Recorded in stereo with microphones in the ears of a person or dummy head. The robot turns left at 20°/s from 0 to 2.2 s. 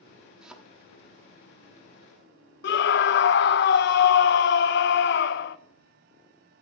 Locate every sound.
0.4 s a thud: 5° right (ahead or behind), 0.9 m
2.6 s a scream: 55° left (ahead or behind), 0.6 m